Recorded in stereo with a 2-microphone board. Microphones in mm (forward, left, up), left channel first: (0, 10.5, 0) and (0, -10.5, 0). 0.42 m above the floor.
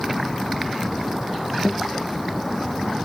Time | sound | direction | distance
1.6 | a guitar | 75° right (ahead or behind) | ?